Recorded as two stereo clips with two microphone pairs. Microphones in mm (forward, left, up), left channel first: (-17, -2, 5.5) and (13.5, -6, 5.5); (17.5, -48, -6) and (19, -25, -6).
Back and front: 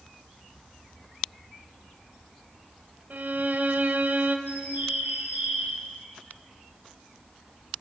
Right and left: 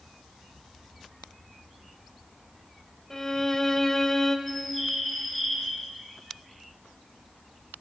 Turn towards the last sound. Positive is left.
turn(degrees=-15)